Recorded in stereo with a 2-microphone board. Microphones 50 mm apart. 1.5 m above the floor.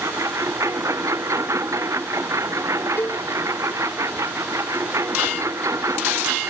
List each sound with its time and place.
0.0 s a lawn mower: 90° right
3.0 s a cowbell: 45° left (ahead or behind)